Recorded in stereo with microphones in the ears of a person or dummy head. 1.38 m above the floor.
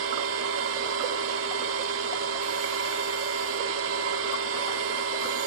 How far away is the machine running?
About 1.8 m.